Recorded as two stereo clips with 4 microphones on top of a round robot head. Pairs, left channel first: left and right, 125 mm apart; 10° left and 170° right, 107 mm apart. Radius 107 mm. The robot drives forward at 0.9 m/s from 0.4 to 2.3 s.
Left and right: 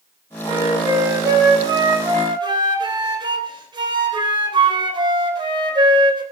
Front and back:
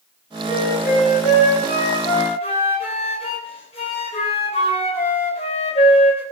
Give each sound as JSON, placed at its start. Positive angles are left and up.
{"t": 0.4, "sound": "a flute", "azimuth_deg": -25, "distance_m": 4.5}